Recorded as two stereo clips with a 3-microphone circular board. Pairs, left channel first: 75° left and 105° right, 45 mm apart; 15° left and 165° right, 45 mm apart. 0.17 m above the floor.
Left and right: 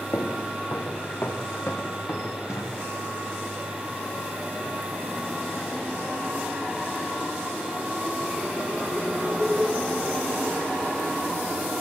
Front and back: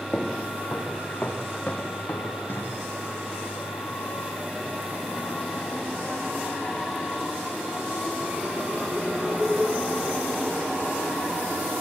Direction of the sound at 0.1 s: 85° left.